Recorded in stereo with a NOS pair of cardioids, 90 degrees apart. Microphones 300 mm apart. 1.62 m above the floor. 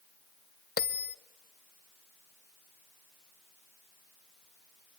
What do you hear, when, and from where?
0.8 s a bell: 35° left, 1.0 m